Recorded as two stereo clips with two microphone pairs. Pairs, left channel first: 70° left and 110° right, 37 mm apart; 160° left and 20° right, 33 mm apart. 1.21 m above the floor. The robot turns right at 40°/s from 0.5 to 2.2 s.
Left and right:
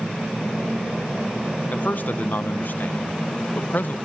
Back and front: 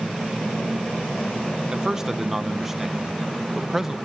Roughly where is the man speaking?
Ahead left.